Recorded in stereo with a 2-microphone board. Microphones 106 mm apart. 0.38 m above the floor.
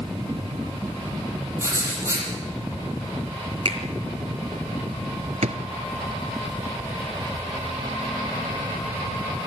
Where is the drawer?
90° right, 1.6 m.